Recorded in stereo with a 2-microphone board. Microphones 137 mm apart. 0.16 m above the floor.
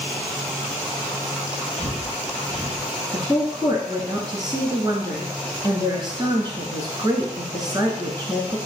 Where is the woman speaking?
35° right (ahead or behind), 1.4 m.